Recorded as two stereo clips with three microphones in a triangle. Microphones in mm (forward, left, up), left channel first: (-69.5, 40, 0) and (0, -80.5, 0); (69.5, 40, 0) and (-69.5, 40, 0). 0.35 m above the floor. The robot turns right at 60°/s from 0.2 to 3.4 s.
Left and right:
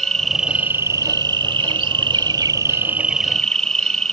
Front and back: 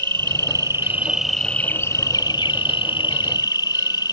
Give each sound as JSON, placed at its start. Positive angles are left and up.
{"t": 0.0, "sound": "an insect", "azimuth_deg": -155}